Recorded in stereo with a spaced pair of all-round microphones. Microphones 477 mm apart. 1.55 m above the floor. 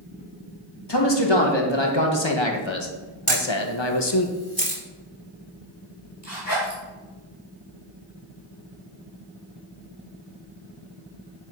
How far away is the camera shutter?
About 2.5 m.